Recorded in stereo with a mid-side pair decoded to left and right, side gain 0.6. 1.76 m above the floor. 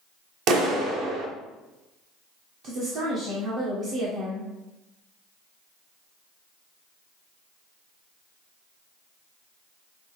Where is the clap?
65° right, 1.1 m.